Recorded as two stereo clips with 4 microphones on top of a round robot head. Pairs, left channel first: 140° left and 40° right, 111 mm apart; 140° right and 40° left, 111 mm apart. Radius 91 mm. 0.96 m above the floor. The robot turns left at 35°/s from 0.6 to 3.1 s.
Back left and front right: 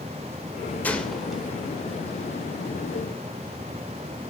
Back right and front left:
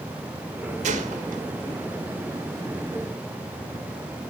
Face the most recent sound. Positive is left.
turn(degrees=-15)